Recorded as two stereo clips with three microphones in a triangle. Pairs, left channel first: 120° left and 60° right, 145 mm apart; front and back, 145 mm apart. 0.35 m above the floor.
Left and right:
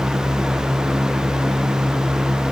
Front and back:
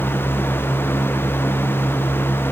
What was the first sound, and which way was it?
Only background noise.